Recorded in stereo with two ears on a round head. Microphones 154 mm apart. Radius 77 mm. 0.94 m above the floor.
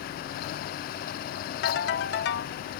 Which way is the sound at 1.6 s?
70° left (ahead or behind).